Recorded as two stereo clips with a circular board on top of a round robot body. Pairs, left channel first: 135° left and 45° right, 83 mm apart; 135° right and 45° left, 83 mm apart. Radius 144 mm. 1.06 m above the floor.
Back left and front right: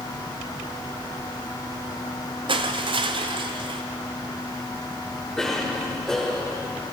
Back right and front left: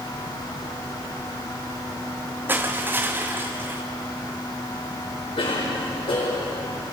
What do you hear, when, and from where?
2.5 s crushing: 20° right, 0.6 m
5.4 s a cough: 140° right, 5.5 m